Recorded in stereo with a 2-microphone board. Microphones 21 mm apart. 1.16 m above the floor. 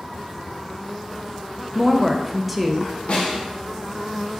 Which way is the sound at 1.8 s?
5° right (ahead or behind).